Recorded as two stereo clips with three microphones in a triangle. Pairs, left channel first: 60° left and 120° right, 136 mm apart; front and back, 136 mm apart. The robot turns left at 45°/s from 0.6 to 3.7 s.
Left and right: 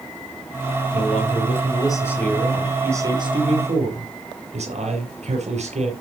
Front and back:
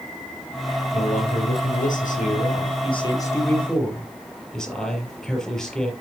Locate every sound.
0.9 s a man speaking: 40° left, 7 m; by 5.9 s 85° right, 7 m